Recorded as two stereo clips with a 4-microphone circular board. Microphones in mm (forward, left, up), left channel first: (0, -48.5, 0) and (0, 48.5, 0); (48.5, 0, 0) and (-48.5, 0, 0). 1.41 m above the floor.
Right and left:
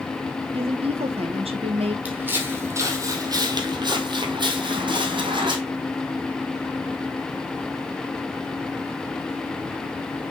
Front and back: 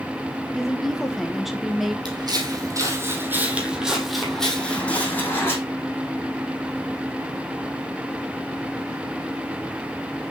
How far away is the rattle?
I don't hear a rattle.